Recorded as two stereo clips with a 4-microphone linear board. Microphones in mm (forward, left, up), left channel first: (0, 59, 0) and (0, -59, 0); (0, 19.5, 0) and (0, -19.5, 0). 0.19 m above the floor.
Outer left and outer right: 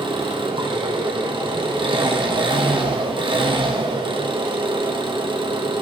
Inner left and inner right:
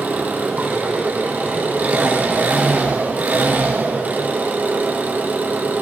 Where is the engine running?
45° right (ahead or behind), 2.5 m.